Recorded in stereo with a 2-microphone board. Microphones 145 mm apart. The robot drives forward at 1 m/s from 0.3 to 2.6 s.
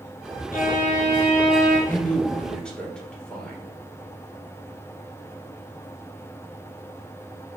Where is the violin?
80° left, 0.8 m; by 1.8 s 30° left (ahead or behind), 1.6 m.